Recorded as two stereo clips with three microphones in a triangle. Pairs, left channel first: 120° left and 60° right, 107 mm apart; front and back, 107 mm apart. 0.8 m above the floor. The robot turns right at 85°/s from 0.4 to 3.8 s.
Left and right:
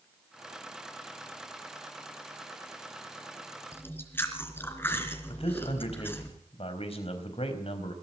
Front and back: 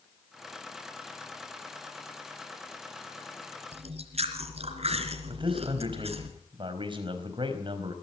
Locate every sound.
3.7 s chewing: 175° right, 3 m; by 6.3 s 170° right, 3 m
5.3 s a man speaking: 140° left, 4.5 m